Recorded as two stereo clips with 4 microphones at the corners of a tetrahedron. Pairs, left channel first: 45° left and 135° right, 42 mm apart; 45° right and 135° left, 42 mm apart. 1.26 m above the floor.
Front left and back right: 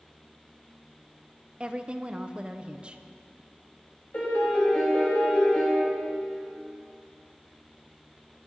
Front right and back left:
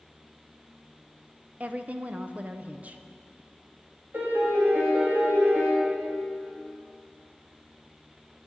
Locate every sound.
1.6 s a woman speaking: 170° left, 0.6 m
4.1 s a piano: 100° left, 2.5 m